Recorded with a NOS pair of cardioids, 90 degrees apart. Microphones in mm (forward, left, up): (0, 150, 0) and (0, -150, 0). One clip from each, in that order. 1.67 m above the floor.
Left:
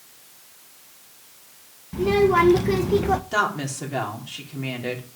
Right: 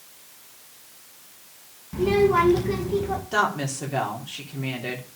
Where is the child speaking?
10° left, 1.8 m; by 3.2 s 65° left, 1.3 m.